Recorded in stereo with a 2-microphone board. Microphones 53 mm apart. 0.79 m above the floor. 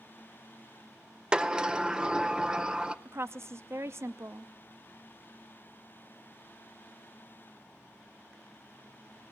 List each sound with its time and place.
1.3 s a sliding door: 20° right (ahead or behind), 0.6 m
3.0 s a woman speaking: 50° right (ahead or behind), 0.7 m